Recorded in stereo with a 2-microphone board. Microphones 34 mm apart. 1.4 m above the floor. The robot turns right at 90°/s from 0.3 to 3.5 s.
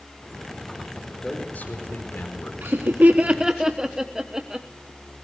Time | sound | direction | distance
1.2 | a man speaking | 15° left | 4.5 m
2.6 | laughter | 70° right (ahead or behind) | 1.1 m